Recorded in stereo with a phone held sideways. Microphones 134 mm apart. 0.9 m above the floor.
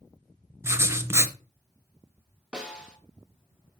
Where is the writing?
20° right (ahead or behind), 0.7 m.